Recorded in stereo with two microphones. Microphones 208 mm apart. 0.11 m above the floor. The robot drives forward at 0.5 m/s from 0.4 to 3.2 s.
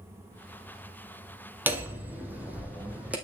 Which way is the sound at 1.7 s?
10° right (ahead or behind).